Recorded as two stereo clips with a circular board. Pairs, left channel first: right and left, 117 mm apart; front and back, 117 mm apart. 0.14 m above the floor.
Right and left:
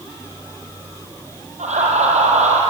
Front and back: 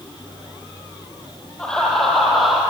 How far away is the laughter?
About 4 m.